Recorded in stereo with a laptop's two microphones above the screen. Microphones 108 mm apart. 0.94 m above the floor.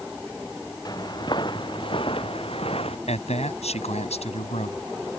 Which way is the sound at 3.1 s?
85° left.